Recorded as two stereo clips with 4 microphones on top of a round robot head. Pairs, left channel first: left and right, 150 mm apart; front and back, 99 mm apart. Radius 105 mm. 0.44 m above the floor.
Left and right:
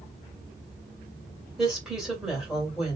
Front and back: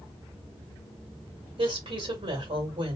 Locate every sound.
1.6 s a woman speaking: 175° right, 1.9 m